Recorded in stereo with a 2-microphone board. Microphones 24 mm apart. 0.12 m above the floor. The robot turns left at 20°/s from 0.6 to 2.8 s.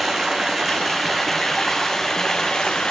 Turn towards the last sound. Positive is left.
turn(degrees=145)